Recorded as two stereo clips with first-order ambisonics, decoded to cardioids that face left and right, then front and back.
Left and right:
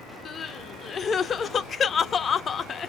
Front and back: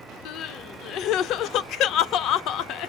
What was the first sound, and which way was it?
Crying, 30° left.